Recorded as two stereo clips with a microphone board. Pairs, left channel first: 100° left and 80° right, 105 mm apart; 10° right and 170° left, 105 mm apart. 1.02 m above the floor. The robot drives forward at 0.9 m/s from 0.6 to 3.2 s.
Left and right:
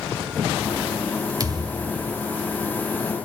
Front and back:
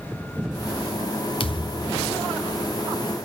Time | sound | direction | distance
1.4 | a thud | 25° right | 0.8 m